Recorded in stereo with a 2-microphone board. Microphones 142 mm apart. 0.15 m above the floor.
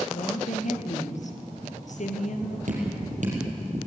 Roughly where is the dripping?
Right.